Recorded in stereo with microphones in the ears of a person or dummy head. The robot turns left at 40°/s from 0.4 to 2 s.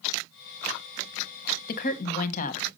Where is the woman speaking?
50° left (ahead or behind), 1.0 m; by 2.7 s 40° left (ahead or behind), 1.0 m.